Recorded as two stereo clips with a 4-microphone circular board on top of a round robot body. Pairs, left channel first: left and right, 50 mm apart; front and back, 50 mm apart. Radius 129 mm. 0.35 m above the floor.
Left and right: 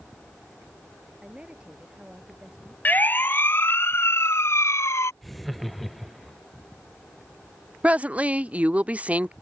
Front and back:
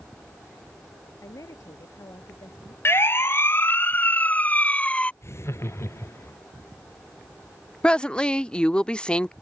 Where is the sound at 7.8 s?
55° right.